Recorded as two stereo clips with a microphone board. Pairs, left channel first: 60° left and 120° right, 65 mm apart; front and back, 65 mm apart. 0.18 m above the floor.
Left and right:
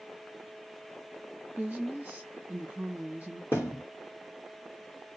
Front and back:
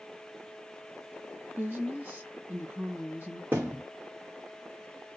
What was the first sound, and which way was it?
A woman speaking, 155° right.